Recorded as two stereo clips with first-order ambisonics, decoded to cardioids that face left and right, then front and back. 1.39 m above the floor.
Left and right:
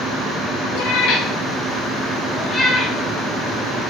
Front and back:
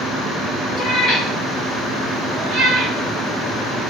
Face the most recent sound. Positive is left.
turn(degrees=-155)